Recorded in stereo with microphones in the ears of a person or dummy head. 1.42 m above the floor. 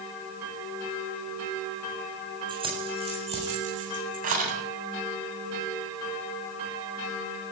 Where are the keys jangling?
25° right (ahead or behind), 7.5 m; by 4.5 s 45° right (ahead or behind), 9 m.